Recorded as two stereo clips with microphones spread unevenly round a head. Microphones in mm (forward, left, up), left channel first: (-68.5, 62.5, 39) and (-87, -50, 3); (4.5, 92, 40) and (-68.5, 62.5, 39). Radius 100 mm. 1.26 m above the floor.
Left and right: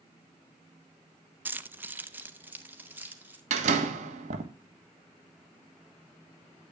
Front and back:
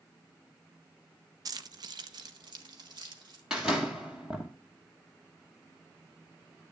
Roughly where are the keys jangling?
Behind.